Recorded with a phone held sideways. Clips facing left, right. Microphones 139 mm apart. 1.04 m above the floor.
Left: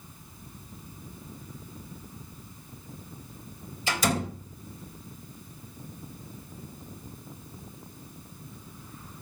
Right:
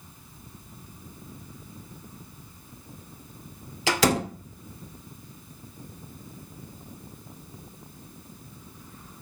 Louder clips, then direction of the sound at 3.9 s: Right 5 dB; 85° right.